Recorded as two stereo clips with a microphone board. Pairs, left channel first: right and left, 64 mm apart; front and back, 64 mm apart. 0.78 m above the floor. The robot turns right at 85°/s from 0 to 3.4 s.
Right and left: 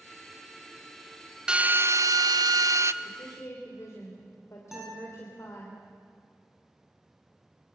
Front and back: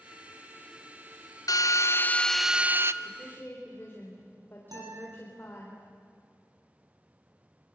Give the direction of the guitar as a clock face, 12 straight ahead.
6 o'clock.